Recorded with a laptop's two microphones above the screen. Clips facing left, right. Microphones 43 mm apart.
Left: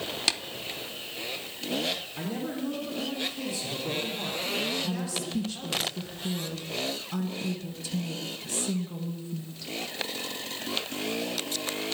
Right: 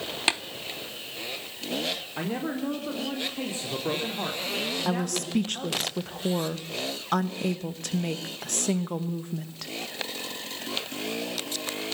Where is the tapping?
25° right (ahead or behind), 0.7 m.